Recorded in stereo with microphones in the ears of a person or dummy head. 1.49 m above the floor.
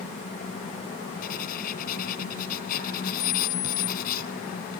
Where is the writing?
50° left (ahead or behind).